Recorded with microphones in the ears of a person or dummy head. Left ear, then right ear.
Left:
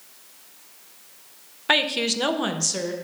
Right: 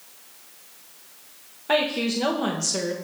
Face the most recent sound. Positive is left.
turn(degrees=-5)  # may be behind; listen again after turning